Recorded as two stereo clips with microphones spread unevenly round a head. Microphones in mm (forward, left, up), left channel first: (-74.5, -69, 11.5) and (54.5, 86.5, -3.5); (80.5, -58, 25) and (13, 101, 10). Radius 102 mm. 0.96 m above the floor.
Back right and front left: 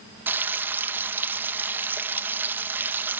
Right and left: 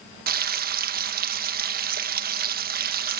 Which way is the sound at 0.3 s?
125° left.